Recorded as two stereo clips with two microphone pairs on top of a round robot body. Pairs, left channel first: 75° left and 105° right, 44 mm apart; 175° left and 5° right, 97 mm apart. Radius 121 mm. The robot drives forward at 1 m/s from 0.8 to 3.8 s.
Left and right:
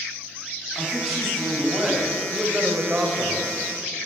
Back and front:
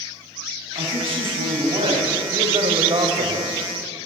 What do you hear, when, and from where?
0.8 s a man speaking: 15° right, 4.5 m; by 3.5 s 45° right, 2.0 m